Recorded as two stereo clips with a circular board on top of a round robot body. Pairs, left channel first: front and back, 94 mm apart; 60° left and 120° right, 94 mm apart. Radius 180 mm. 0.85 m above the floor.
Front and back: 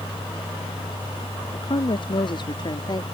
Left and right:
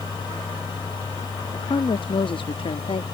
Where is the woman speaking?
20° left; by 3.0 s 45° left.